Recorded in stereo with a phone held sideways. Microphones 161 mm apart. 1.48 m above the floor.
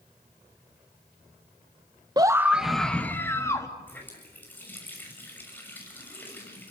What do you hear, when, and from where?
2.2 s a scream: 25° right (ahead or behind), 1.3 m; by 3.7 s 20° left (ahead or behind), 3 m
3.9 s a running tap: 10° left (ahead or behind), 6 m